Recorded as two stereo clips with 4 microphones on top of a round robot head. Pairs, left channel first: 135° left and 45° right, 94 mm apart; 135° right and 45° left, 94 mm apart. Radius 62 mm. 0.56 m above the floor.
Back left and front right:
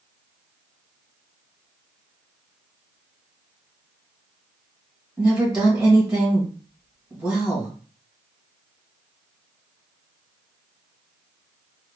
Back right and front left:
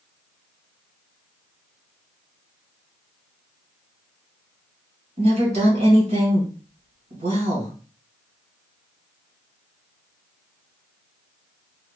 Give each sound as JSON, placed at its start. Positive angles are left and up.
{"t": 5.2, "sound": "a woman speaking", "azimuth_deg": 35, "distance_m": 2.5}